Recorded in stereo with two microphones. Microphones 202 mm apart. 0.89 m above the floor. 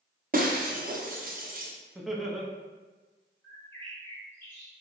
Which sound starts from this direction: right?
Breaking glass, at 0.3 s.